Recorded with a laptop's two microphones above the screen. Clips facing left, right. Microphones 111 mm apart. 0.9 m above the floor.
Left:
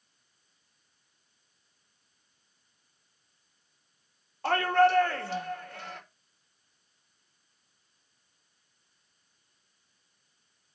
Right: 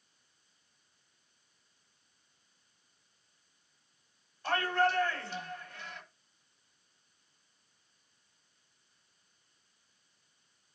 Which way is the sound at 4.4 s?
75° left (ahead or behind).